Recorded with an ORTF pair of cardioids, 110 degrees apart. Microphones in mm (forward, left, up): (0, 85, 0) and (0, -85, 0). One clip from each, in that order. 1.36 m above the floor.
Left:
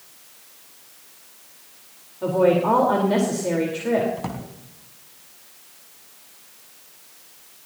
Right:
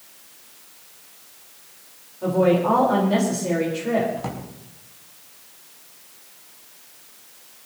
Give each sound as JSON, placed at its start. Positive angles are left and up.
{"t": 2.2, "sound": "a woman speaking", "azimuth_deg": 20, "distance_m": 4.0}
{"t": 4.2, "sound": "a drawer", "azimuth_deg": 15, "distance_m": 4.5}